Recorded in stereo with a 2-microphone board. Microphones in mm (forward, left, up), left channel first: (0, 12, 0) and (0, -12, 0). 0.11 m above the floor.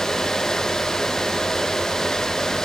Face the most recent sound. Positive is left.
No sound to turn to.